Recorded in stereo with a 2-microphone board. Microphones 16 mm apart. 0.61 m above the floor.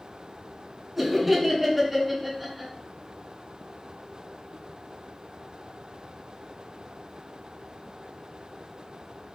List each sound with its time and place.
1.0 s laughter: 10° right (ahead or behind), 1.3 m